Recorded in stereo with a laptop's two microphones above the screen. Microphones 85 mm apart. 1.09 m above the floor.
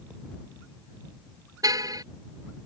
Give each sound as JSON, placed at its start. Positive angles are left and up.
{"t": 1.6, "sound": "a car horn", "side_deg": -45}